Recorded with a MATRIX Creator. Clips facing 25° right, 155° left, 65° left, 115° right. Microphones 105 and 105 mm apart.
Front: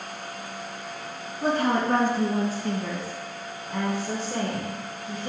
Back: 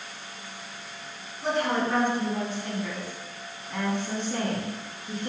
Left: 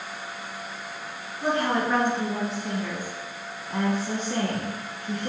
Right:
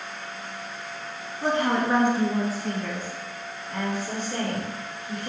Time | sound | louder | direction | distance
1.4 | a woman speaking | front 3 dB, right 1 dB | 55° right | 1.8 m